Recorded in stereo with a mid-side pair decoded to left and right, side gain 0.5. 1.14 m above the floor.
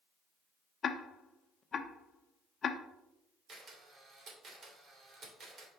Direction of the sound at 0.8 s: 40° left.